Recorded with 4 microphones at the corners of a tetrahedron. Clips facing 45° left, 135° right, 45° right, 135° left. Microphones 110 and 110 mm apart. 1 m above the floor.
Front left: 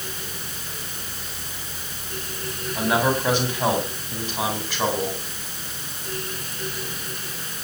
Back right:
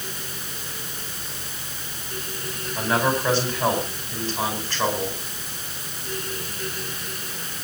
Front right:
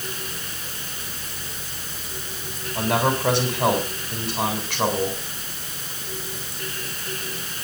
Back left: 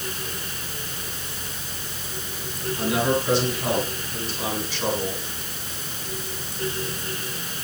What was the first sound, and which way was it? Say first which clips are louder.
A man speaking: front left 1 dB, front right 1 dB; 30° right.